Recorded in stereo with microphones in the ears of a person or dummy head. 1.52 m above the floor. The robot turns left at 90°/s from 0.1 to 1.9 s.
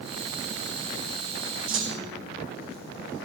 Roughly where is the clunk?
Right.